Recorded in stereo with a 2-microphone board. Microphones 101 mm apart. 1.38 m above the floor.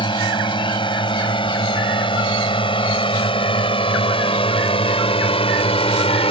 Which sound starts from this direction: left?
A drone, at 0.0 s.